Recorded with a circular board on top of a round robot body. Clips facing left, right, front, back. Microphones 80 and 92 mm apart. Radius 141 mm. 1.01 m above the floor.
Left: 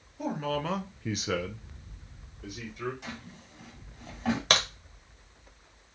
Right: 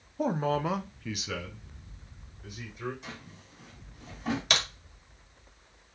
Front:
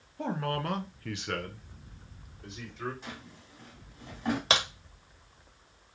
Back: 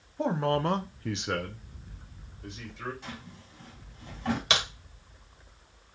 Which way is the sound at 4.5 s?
45° left.